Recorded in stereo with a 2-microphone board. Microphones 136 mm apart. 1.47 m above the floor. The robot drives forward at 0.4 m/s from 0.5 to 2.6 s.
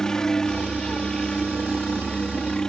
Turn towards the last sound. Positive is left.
turn(degrees=5)  # may be behind; listen again after turning